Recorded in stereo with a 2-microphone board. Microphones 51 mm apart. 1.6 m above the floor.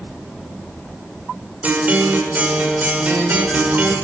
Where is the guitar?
30° right (ahead or behind), 6 m.